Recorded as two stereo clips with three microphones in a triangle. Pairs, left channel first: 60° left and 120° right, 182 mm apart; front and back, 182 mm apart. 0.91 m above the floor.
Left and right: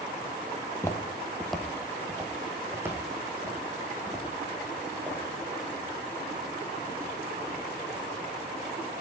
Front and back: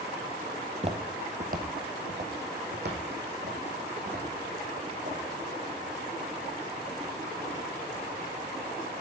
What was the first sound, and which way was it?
Footsteps, 120° left.